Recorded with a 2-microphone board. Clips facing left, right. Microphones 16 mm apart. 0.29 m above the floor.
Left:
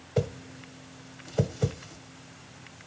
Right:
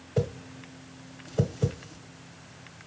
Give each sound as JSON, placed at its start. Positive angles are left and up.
{"t": 0.2, "sound": "a whoosh", "side_deg": 20, "distance_m": 1.6}